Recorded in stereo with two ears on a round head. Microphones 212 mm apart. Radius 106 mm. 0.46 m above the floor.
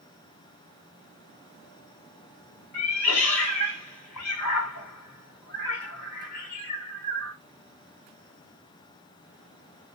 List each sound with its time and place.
2.7 s a cat meowing: 75° left (ahead or behind), 1.1 m